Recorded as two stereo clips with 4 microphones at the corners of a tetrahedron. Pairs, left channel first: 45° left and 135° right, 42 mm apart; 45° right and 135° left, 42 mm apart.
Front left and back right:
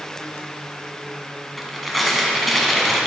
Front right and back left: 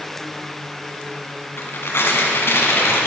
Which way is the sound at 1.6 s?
45° right.